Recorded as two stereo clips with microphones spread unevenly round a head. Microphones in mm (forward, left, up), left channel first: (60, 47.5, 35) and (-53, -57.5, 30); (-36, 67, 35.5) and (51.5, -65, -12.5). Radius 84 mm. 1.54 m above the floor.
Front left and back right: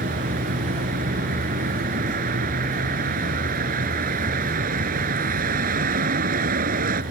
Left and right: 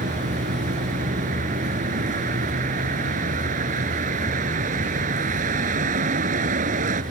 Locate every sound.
0.0 s a vehicle: 100° right